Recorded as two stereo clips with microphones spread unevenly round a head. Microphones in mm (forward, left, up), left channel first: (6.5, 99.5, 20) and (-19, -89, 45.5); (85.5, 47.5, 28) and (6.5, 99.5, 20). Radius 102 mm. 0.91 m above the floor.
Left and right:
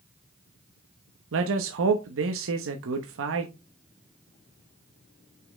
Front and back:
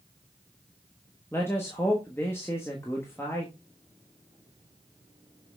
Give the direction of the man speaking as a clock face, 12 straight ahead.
4 o'clock.